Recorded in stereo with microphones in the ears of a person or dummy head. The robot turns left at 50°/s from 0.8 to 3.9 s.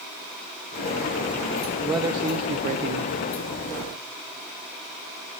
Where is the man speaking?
10° right, 1.0 m; by 3.2 s 75° right, 1.0 m.